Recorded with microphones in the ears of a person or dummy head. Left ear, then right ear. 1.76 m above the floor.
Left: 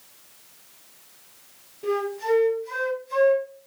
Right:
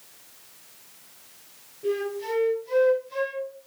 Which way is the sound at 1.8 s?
60° left (ahead or behind).